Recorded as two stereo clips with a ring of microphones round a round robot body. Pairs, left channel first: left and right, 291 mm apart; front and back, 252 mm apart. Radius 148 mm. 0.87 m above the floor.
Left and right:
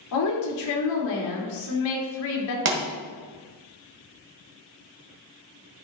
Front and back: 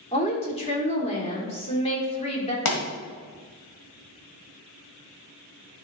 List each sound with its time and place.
0.1 s a woman speaking: 65° left, 2.5 m
2.6 s a pop: 40° right, 1.7 m